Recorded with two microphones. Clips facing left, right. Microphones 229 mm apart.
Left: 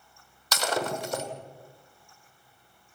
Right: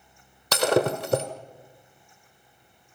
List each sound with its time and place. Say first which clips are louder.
0.5 s breaking glass: right 8 dB; 60° right (ahead or behind), 1.6 m